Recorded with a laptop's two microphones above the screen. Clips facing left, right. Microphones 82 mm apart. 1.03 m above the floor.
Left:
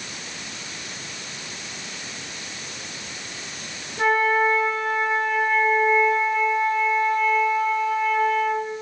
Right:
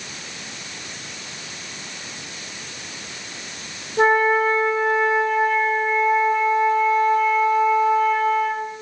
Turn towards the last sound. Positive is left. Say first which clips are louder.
# right 3 dB
turn(degrees=-45)  # may be behind; listen again after turning